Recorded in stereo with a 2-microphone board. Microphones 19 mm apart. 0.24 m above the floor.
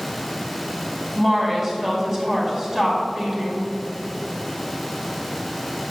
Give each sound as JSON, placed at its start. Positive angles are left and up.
{"t": 1.1, "sound": "a woman speaking", "side_deg": -25, "distance_m": 2.0}